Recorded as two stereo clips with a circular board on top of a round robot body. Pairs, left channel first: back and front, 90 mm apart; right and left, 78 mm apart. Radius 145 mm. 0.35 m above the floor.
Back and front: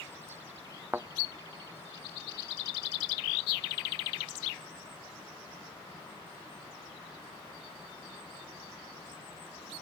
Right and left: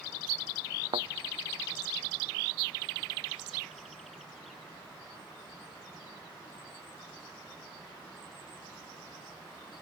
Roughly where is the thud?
Left.